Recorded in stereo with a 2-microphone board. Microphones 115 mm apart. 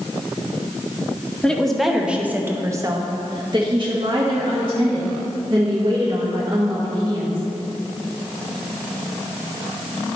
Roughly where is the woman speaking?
Centre.